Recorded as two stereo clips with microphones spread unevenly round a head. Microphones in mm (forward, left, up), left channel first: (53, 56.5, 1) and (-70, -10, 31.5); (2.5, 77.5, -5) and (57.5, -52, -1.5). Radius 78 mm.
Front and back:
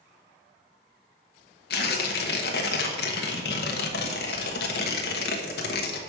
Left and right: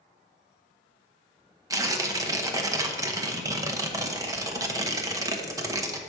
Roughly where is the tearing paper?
Ahead.